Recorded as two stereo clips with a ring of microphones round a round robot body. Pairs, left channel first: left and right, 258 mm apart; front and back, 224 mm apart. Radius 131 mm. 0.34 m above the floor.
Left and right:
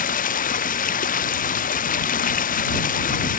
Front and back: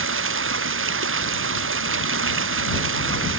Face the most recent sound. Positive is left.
turn(degrees=150)